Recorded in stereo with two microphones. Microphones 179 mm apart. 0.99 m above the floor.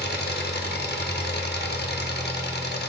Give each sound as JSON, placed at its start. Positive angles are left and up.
{"t": 0.0, "sound": "an engine running", "side_deg": 65, "distance_m": 0.8}